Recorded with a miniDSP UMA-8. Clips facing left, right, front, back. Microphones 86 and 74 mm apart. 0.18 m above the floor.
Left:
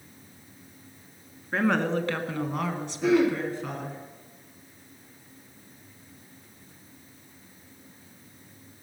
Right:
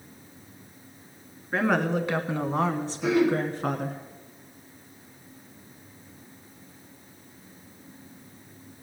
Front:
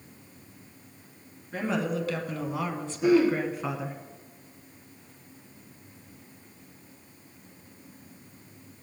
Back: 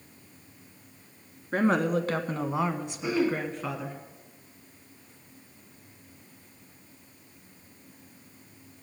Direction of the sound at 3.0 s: 40° left.